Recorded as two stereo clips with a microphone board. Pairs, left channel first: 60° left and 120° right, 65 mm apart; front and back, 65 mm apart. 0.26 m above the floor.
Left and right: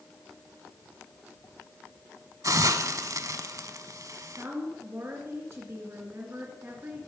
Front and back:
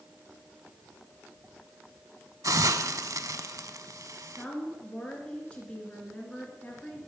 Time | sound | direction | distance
2.4 | a hiss | 150° right | 0.5 m
4.2 | a woman speaking | 70° right | 3 m